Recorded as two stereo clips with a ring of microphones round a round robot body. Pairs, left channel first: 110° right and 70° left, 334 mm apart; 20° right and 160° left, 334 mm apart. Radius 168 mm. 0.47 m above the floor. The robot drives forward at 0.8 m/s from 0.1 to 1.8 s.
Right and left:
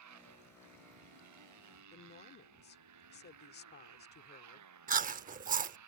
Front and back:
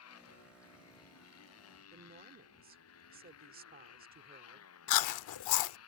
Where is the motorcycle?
25° left.